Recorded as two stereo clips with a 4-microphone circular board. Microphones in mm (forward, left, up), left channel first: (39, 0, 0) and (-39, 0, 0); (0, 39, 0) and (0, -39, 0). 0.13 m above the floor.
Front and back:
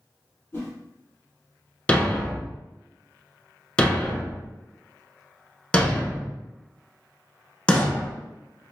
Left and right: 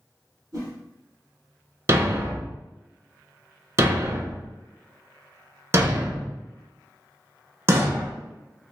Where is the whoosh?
55° right, 1.8 m.